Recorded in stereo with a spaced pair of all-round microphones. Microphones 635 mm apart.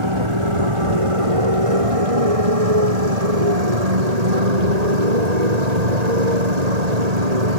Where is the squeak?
No squeak in this recording.